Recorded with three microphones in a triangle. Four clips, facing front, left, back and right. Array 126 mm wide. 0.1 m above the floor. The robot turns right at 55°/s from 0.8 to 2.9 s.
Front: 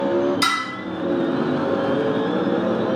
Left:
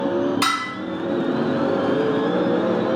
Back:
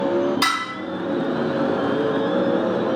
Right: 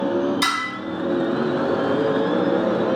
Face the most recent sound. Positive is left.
turn(degrees=-110)